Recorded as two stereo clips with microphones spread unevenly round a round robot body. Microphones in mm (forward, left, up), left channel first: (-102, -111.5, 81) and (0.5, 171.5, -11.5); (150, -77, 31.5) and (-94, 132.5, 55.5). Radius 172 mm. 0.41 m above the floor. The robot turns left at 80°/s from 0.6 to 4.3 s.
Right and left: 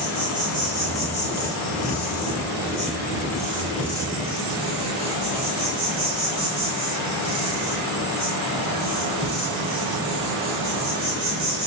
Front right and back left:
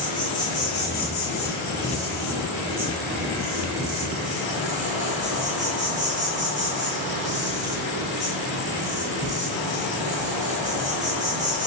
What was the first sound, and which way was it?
An insect, 20° left.